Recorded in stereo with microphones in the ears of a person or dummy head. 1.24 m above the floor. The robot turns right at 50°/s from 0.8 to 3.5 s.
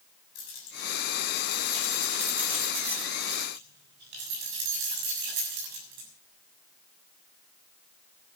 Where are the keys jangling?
65° left (ahead or behind), 7 m; by 6.1 s 70° right (ahead or behind), 7 m.